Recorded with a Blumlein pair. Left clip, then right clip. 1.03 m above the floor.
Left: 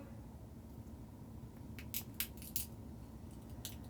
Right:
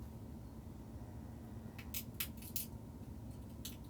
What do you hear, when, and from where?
1.8 s a crack: 20° left, 1.2 m